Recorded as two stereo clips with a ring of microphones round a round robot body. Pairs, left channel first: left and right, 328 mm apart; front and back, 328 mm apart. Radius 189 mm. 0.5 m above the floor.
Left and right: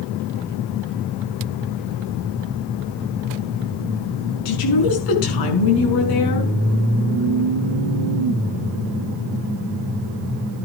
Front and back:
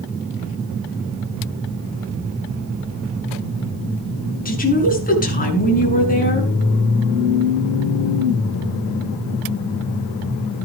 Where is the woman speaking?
65° left, 5.5 m.